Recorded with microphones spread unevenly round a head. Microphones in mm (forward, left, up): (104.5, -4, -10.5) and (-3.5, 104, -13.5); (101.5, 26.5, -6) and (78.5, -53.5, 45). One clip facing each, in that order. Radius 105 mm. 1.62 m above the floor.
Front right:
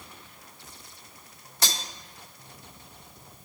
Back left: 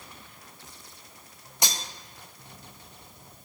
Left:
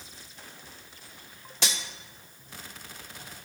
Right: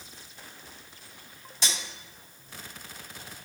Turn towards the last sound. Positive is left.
turn(degrees=85)